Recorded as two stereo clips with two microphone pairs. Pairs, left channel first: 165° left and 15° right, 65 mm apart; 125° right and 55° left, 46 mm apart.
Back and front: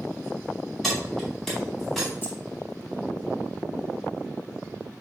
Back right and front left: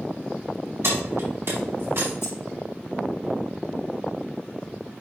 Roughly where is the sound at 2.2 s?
Behind right.